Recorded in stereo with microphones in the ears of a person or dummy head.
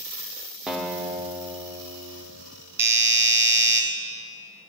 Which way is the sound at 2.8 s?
15° right (ahead or behind).